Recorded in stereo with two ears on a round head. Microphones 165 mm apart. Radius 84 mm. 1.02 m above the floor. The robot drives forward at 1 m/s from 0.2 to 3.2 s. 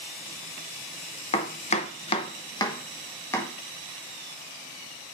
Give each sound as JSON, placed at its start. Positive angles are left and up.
{"t": 1.3, "sound": "chopping", "side_deg": 30, "distance_m": 0.8}